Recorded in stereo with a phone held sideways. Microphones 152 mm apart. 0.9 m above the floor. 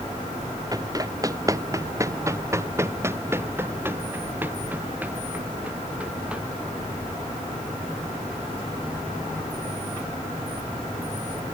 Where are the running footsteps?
25° right (ahead or behind); by 6.4 s 5° right (ahead or behind).